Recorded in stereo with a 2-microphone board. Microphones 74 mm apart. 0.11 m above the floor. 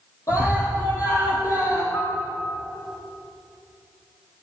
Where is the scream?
50° left (ahead or behind), 3.5 m.